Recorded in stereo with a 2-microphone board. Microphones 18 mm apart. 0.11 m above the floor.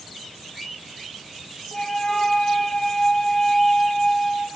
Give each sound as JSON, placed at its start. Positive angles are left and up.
{"t": 1.7, "sound": "a flute", "side_deg": 25, "distance_m": 0.7}